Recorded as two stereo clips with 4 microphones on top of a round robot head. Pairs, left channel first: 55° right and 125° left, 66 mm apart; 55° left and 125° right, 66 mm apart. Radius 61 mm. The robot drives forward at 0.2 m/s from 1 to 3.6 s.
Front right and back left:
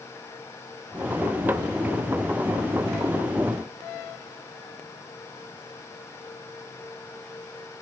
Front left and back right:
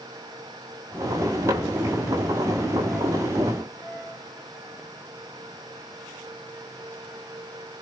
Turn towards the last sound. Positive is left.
No sound to turn to.